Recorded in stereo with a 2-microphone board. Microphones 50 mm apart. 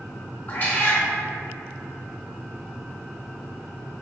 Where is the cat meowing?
45° left (ahead or behind), 1.1 m.